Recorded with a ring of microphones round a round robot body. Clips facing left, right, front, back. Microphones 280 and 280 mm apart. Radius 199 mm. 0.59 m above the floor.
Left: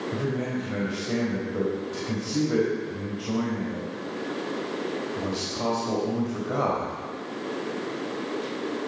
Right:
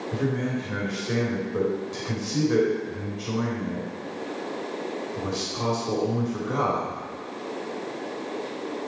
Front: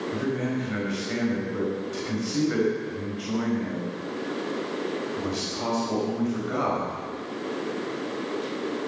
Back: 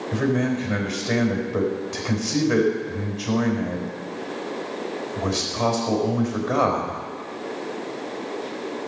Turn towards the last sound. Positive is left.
turn(degrees=-155)